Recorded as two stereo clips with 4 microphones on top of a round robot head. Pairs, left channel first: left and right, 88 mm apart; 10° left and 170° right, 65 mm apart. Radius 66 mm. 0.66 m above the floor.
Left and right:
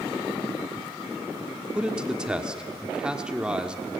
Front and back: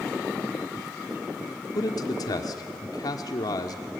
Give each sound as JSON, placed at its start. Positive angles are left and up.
{"t": 1.8, "sound": "a man speaking", "azimuth_deg": -10, "distance_m": 1.3}